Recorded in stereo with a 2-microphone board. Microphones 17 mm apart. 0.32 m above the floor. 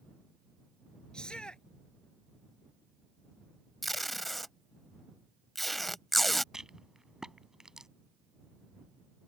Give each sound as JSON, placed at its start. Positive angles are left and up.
{"t": 1.1, "sound": "a shout", "side_deg": 55}
{"t": 3.8, "sound": "tape being pulled", "side_deg": 5}
{"t": 6.5, "sound": "a rattle", "side_deg": -40}